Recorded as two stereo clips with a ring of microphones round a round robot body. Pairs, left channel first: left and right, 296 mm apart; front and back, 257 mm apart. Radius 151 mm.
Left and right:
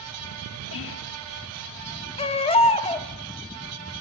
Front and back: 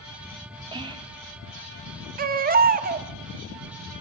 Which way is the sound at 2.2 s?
150° left.